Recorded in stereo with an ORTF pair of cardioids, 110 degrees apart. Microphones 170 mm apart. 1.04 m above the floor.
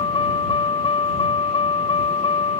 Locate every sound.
0.0 s a vehicle: 30° left